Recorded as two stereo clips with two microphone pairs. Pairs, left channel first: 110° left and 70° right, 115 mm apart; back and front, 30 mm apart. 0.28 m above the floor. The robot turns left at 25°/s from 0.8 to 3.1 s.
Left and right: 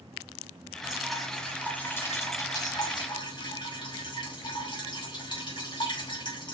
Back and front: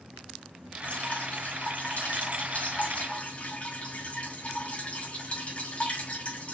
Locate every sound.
0.8 s dripping: 155° right, 2.5 m; by 6.5 s 150° left, 2.5 m